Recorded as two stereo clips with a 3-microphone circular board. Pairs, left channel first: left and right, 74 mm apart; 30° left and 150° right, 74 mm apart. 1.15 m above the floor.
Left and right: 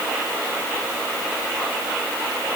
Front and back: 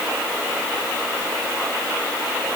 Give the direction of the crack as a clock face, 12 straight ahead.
I don't hear a crack.